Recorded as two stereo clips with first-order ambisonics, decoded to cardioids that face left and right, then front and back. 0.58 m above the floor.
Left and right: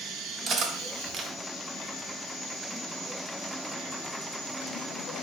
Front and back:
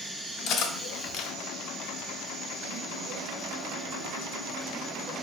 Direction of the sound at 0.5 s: 35° right.